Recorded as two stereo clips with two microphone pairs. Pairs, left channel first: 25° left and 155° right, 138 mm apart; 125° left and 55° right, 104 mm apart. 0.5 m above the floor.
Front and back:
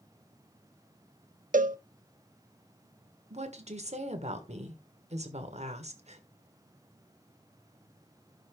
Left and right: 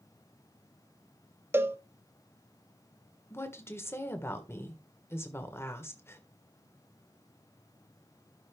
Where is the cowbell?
125° right, 0.6 m.